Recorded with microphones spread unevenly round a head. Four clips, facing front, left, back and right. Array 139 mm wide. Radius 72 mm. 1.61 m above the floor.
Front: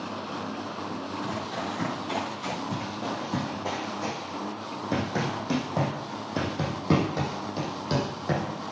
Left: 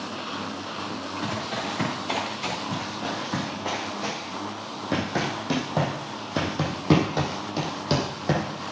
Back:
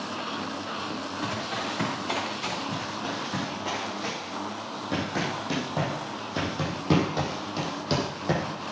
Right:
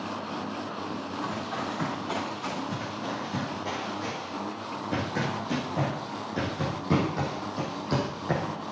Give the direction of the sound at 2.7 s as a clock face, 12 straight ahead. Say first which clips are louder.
Left 2 dB, even; 11 o'clock.